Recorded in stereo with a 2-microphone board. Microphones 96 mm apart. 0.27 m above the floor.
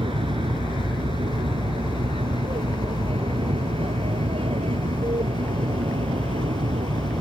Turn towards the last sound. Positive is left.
turn(degrees=-75)  # may be behind; listen again after turning